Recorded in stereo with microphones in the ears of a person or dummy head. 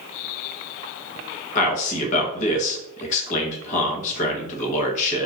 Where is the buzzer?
I don't hear a buzzer.